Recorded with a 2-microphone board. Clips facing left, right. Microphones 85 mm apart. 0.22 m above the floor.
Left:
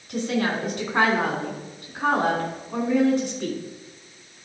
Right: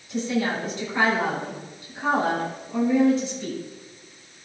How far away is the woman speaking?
About 2.5 m.